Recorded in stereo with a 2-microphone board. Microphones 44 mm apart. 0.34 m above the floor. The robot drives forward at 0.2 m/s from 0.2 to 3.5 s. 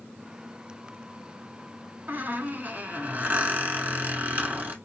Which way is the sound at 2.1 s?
50° right (ahead or behind).